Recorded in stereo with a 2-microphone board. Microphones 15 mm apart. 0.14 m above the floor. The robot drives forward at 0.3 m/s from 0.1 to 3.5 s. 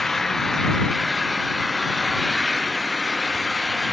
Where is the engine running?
20° left (ahead or behind).